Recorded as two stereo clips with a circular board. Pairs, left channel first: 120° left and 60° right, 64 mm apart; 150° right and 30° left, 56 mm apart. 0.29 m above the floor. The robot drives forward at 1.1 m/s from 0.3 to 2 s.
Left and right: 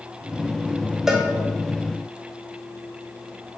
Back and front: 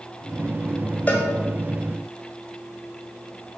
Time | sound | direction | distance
1.1 | a cowbell | 135° right | 1.3 m